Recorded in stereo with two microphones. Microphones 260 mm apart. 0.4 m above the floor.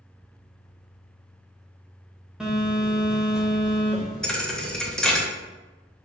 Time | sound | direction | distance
2.4 | a phone buzzing | 5° right (ahead or behind) | 0.9 m
4.2 | a thud | 5° left (ahead or behind) | 0.7 m